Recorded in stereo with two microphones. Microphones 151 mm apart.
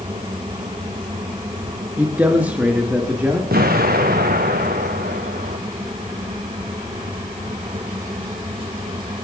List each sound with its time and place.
2.0 s a man speaking: 10° right (ahead or behind), 2 m
3.5 s an explosion: 85° right, 2.0 m